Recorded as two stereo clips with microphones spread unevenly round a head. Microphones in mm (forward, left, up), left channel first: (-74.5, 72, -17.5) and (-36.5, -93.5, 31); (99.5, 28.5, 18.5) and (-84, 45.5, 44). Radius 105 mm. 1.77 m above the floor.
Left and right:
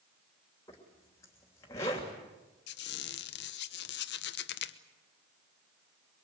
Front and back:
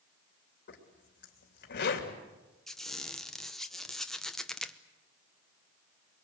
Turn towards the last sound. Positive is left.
turn(degrees=90)